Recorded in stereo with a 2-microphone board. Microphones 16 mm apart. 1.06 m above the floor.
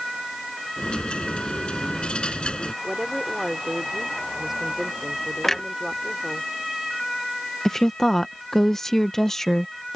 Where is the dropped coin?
75° left (ahead or behind).